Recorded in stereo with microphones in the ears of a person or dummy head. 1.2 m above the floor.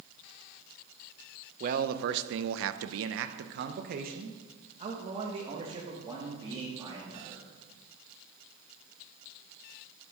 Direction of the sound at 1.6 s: 40° right (ahead or behind).